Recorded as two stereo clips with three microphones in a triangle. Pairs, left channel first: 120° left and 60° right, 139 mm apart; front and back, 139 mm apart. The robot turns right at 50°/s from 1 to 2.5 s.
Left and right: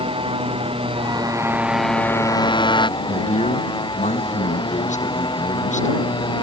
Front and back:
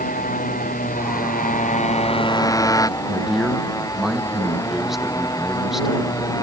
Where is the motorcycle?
10° right; by 6.4 s 65° left.